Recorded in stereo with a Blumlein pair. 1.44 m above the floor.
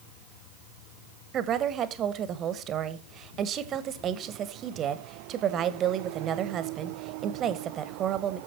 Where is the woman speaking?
30° right, 1.1 m.